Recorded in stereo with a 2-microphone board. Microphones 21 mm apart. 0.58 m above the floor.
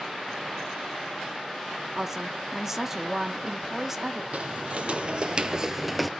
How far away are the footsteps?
About 1.1 m.